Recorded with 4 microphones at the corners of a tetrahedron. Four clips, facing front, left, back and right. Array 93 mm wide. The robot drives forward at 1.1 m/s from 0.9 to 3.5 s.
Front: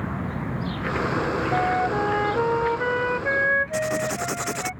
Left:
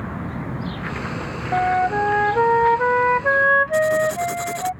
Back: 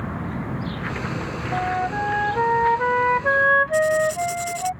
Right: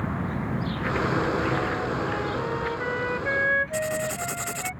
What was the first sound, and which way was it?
A flute, 80° left.